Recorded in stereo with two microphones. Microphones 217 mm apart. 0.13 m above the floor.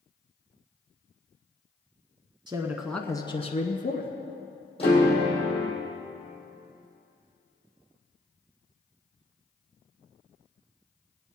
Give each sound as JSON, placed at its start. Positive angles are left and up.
{"t": 2.5, "sound": "a man speaking", "side_deg": -20, "distance_m": 1.0}
{"t": 4.8, "sound": "a piano", "side_deg": 25, "distance_m": 4.0}